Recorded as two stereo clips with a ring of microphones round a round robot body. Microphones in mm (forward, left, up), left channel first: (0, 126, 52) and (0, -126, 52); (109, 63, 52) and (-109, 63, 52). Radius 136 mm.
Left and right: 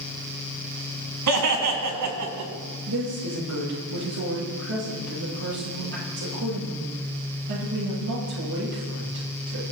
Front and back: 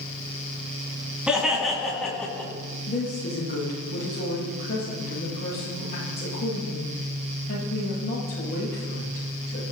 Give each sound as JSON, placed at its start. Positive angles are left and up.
{"t": 1.3, "sound": "laughter", "azimuth_deg": -95, "distance_m": 4.5}
{"t": 2.9, "sound": "a woman speaking", "azimuth_deg": -55, "distance_m": 10.0}